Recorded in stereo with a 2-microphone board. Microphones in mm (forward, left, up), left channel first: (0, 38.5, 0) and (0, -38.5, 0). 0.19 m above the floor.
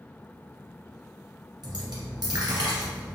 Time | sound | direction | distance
1.6 | a dropped coin | 65° right (ahead or behind) | 1.6 m